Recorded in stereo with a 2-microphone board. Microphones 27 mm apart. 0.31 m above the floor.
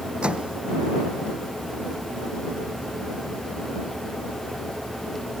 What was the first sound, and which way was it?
A microwave, 45° right (ahead or behind).